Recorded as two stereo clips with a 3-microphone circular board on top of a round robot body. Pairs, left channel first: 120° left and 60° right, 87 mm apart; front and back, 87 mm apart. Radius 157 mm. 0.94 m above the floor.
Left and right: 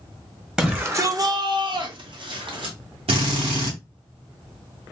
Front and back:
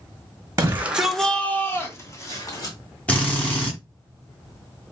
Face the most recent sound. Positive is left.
turn(degrees=-75)